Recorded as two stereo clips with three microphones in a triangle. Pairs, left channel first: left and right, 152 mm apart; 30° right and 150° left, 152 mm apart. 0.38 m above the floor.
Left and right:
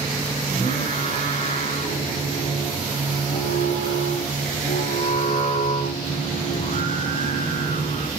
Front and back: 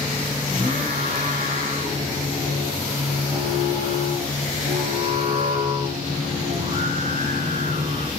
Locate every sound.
0.5 s singing: 105° left, 3.5 m